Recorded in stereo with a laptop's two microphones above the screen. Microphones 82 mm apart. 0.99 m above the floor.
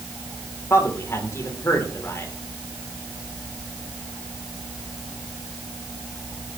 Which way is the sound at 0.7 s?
35° left (ahead or behind).